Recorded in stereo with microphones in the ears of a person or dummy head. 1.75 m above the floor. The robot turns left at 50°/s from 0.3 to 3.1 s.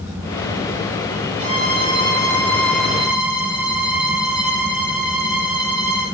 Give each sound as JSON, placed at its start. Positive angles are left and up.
{"t": 1.4, "sound": "a violin", "azimuth_deg": -40, "distance_m": 4.5}